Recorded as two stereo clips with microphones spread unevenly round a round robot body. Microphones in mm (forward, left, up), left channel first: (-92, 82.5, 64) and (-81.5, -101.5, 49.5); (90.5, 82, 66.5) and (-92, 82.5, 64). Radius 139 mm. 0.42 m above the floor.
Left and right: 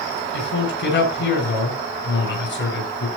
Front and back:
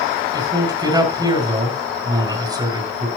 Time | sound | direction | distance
0.3 | a man speaking | 110° left | 6.5 m